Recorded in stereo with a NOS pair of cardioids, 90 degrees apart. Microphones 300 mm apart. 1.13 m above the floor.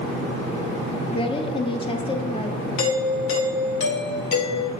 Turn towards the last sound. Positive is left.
turn(degrees=45)